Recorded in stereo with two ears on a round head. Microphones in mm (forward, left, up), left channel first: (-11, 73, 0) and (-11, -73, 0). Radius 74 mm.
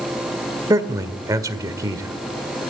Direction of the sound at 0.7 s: 20° right (ahead or behind).